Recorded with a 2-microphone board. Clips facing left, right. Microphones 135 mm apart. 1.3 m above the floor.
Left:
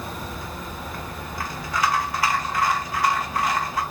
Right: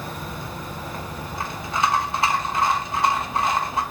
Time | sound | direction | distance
0.3 | a rattle | 25° right (ahead or behind) | 0.6 m